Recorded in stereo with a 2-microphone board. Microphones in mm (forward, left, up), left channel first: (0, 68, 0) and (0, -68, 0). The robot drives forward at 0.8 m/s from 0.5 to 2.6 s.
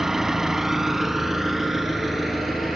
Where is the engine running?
5° right (ahead or behind), 1.0 m; by 2.8 s centre (ahead or behind), 2.5 m.